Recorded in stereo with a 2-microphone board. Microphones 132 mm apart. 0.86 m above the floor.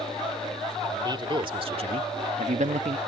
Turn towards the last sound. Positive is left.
turn(degrees=-55)  # may be behind; listen again after turning